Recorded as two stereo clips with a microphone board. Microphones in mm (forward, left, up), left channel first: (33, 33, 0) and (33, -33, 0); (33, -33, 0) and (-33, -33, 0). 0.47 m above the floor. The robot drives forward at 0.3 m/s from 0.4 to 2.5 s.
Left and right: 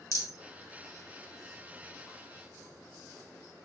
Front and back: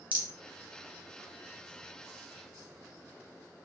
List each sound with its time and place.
0.1 s a rattle: 125° right, 0.7 m